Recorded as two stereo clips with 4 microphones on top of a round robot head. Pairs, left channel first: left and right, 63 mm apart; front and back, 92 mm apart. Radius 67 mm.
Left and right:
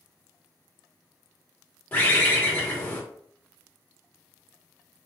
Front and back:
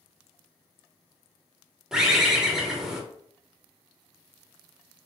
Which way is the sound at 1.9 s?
105° left.